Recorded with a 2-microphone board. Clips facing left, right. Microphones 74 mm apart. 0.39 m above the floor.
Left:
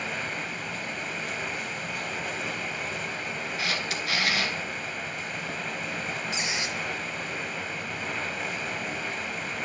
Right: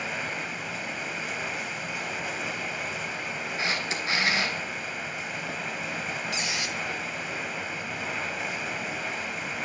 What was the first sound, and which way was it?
Running water, 5° right (ahead or behind).